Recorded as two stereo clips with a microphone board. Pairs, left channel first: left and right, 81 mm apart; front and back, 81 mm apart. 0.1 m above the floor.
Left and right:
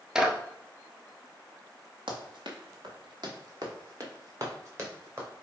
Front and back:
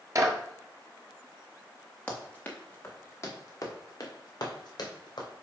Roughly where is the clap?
Behind.